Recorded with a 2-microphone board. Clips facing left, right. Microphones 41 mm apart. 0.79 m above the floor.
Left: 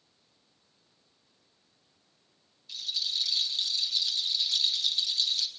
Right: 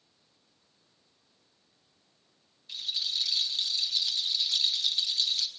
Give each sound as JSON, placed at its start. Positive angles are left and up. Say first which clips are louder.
{"t": 2.7, "sound": "a rattle", "louder": "even", "side_deg": -25, "distance_m": 1.1}